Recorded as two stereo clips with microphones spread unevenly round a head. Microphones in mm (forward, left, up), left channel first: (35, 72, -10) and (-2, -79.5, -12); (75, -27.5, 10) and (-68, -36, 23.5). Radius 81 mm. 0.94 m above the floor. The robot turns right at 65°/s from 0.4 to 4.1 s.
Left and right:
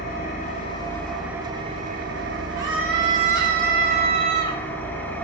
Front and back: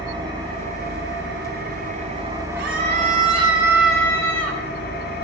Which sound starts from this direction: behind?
A scream, at 2.6 s.